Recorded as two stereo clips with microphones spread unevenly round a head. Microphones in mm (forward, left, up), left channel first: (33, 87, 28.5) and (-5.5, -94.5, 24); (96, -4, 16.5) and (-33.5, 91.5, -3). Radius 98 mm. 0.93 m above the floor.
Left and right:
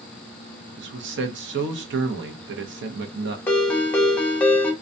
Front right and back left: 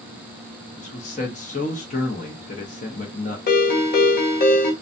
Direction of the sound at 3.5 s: 5° right.